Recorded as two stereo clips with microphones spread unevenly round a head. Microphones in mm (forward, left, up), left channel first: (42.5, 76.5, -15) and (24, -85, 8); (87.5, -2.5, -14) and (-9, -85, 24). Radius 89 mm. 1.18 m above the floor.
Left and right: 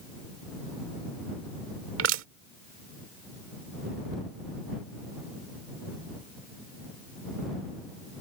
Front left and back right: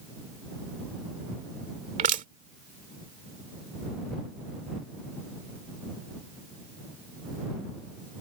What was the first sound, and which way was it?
Crushing, 120° right.